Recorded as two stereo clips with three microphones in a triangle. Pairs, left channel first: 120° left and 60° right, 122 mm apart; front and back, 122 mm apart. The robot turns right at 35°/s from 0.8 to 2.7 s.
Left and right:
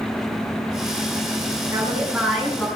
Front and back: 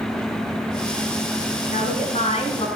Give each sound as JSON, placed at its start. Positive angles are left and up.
{"t": 1.7, "sound": "a woman speaking", "azimuth_deg": 5, "distance_m": 5.0}